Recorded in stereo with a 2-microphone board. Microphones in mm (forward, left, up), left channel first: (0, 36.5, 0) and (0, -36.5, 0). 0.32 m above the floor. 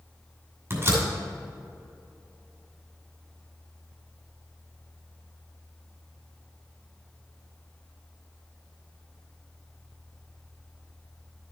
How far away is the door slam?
About 2.5 m.